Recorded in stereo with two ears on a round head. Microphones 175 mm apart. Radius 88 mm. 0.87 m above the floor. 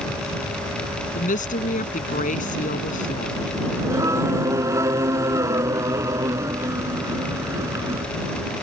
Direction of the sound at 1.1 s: 40° left (ahead or behind).